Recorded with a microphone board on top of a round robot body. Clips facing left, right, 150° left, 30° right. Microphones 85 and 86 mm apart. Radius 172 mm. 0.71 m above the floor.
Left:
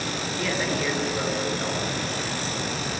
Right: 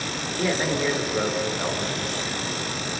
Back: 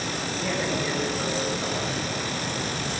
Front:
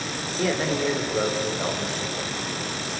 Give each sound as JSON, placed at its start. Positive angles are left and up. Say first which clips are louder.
{"t": 0.4, "sound": "a man speaking", "louder": "right 4 dB, front 5 dB", "azimuth_deg": -25, "distance_m": 3.5}